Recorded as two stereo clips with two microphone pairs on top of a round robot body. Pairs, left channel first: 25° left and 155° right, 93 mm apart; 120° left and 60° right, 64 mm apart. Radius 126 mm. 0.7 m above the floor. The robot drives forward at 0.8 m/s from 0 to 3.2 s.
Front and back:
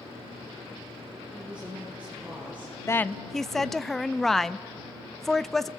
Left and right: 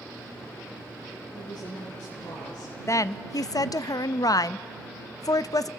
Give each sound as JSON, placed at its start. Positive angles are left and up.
{"t": 1.3, "sound": "a woman speaking", "azimuth_deg": 125, "distance_m": 9.0}
{"t": 2.9, "sound": "a woman speaking", "azimuth_deg": 80, "distance_m": 0.6}